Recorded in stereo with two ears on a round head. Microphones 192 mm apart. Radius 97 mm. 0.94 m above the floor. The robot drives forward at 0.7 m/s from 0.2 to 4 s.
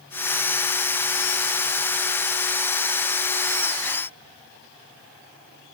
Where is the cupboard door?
No cupboard door in this recording.